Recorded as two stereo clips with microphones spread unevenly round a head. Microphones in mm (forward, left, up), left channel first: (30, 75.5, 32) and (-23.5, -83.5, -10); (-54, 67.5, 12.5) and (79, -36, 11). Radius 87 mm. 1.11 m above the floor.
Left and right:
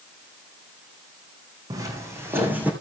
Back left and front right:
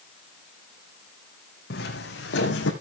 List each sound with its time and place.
1.7 s footsteps: 175° left, 3.5 m; by 2.7 s 165° left, 3 m